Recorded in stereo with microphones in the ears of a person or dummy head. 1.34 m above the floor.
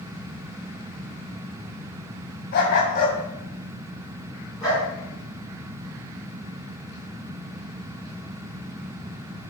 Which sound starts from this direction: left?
A dog barking, at 2.5 s.